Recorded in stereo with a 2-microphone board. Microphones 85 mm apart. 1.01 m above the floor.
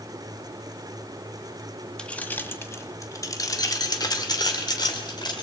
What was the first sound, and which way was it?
Keys jangling, 10° left (ahead or behind).